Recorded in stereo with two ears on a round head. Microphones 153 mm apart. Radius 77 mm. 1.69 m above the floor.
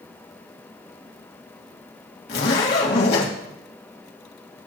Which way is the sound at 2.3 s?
60° left (ahead or behind).